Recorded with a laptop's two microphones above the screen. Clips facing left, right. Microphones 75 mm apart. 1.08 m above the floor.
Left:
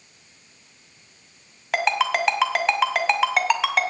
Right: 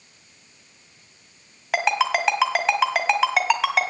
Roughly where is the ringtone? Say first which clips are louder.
Even; centre.